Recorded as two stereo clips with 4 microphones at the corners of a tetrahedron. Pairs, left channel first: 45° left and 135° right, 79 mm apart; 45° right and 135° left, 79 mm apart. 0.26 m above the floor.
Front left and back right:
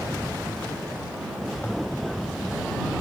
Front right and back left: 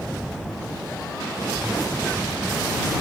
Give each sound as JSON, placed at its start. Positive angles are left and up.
{"t": 1.6, "sound": "a toilet flushing", "azimuth_deg": 80}